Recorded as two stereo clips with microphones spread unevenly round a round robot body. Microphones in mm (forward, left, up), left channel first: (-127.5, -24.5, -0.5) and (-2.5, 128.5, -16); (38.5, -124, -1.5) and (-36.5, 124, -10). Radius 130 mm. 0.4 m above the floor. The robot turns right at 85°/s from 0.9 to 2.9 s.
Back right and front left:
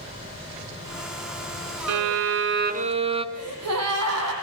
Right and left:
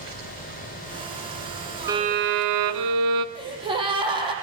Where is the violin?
25° left, 1.8 m; by 3.2 s 115° left, 1.8 m.